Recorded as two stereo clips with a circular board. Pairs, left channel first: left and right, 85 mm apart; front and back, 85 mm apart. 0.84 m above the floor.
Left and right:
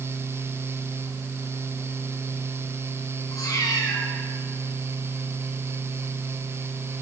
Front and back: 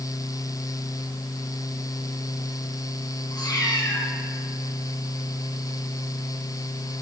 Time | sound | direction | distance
3.3 | a cat meowing | 45° left | 4.5 m